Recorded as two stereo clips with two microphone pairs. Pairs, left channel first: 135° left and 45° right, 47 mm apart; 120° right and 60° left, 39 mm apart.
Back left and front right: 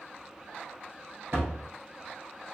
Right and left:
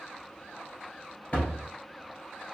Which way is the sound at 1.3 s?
70° right.